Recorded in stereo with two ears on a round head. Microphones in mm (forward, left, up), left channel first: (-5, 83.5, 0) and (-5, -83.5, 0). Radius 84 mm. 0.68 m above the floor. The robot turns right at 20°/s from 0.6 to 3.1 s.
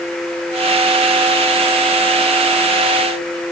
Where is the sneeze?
I don't hear a sneeze.